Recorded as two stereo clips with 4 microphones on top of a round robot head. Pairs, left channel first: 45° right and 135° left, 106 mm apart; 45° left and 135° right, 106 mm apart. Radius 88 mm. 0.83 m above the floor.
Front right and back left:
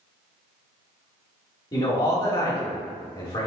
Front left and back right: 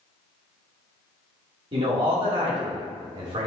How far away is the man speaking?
About 2.5 m.